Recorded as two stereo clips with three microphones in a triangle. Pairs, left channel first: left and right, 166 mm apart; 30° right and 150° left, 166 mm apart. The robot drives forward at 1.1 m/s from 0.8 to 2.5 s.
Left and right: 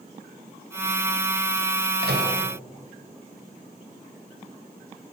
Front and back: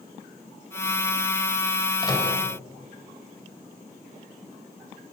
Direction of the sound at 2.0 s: 95° right.